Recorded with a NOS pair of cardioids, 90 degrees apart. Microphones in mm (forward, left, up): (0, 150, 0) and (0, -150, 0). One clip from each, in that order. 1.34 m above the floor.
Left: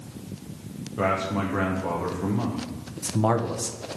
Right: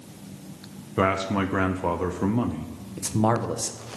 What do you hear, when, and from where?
1.0 s a man speaking: 45° right, 0.9 m
3.0 s a man speaking: 10° right, 0.9 m